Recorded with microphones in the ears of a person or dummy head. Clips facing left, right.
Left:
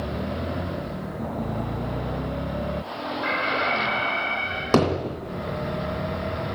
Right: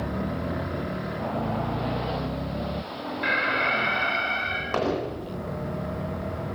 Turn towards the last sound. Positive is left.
turn(degrees=60)  # may be behind; listen again after turning